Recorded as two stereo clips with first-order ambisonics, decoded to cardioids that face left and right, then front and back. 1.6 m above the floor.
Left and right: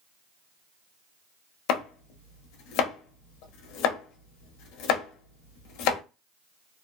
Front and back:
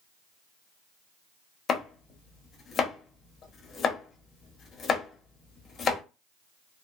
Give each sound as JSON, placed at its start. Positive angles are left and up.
{"t": 1.7, "sound": "chopping", "azimuth_deg": 65, "distance_m": 0.7}